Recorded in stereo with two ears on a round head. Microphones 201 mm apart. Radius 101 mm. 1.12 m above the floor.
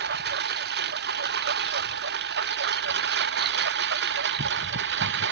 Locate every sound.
0.0 s a lawn mower: 50° right (ahead or behind); by 5.3 s 55° right (ahead or behind)